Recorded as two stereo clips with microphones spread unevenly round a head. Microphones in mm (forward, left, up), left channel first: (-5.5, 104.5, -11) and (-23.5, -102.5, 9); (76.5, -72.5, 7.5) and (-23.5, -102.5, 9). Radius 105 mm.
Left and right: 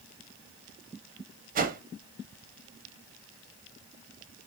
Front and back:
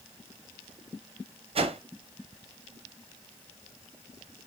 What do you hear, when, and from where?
1.6 s a whoosh: 140° right, 0.8 m